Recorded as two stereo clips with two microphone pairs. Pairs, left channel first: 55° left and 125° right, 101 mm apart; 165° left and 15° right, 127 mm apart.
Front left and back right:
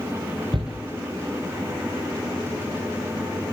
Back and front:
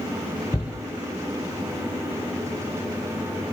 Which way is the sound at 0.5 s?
140° right.